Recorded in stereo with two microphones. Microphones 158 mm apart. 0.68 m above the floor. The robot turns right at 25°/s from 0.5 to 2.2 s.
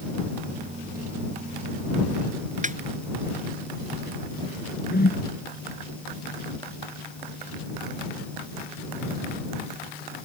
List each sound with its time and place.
2.6 s a snare drum: 50° right (ahead or behind)
4.9 s a whoosh: 80° left